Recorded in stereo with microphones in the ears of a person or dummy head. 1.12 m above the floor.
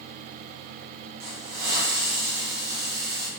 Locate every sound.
1.2 s a hiss: 50° right (ahead or behind), 1.1 m